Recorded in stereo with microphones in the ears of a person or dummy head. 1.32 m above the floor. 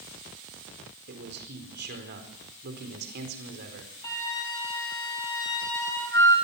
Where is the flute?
20° left (ahead or behind), 7 m.